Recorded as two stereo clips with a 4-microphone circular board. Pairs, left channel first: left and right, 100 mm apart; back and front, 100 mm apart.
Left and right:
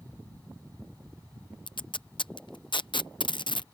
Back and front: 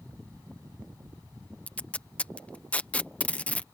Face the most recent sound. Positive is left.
turn(degrees=105)